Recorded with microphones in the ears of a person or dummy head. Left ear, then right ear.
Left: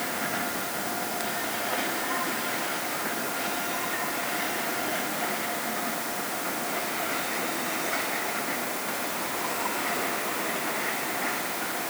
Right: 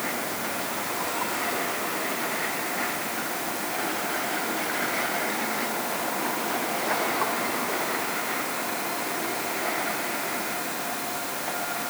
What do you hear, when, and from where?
Only background noise.